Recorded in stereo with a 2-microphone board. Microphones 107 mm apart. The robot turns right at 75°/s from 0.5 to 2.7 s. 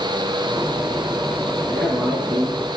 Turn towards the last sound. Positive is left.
turn(degrees=-115)